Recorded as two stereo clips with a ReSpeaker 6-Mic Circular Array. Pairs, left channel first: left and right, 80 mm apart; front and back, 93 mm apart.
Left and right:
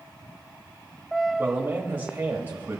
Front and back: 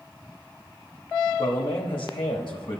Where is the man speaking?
30° right, 1.3 m.